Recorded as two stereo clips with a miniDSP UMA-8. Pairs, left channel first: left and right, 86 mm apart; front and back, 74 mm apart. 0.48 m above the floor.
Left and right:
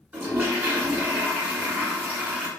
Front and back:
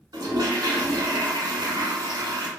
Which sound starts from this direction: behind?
A toilet flushing, at 0.1 s.